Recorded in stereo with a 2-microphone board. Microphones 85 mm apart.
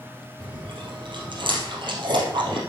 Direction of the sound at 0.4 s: 70° right (ahead or behind).